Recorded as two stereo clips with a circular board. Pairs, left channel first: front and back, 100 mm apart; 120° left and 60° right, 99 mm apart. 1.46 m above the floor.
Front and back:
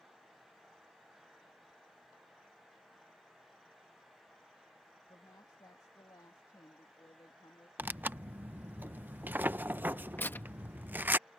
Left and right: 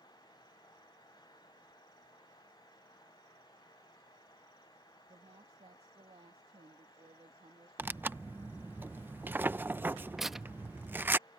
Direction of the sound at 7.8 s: 120° right.